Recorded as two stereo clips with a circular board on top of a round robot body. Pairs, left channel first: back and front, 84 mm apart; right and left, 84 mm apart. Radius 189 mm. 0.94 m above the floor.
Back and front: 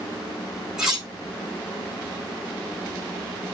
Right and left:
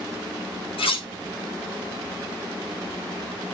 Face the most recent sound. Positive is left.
turn(degrees=-85)